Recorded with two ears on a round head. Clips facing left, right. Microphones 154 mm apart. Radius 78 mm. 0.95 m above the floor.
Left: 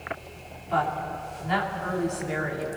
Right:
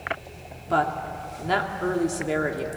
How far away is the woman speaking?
About 2.5 m.